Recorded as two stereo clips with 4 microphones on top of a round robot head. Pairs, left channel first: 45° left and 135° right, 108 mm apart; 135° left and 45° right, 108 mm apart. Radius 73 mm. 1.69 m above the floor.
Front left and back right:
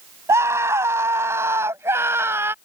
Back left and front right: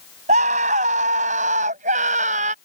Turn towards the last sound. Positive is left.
turn(degrees=-65)